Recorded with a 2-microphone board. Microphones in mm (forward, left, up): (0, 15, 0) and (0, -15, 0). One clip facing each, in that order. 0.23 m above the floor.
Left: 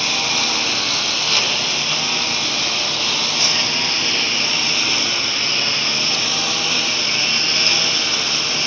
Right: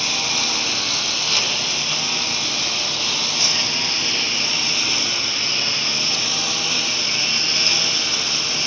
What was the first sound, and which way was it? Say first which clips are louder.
A lawn mower: left 3 dB; 10° left (ahead or behind).